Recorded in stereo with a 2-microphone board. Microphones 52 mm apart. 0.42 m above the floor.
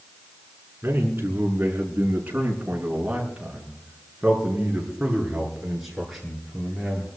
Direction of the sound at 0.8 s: 45° right (ahead or behind).